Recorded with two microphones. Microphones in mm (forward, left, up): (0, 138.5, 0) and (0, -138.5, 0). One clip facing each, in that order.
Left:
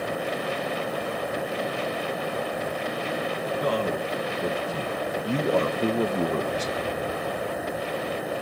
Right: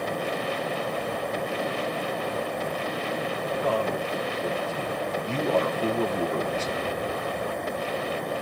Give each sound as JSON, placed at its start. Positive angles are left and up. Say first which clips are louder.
{"t": 3.6, "sound": "a man speaking", "louder": "left 1 dB", "side_deg": 40, "distance_m": 1.4}